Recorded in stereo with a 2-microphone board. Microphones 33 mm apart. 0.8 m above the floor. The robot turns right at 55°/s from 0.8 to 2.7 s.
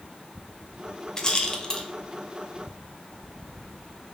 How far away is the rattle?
About 0.6 m.